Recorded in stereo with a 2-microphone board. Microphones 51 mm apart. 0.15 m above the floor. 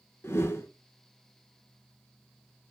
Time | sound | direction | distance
0.2 | a whoosh | 60° left (ahead or behind) | 0.5 m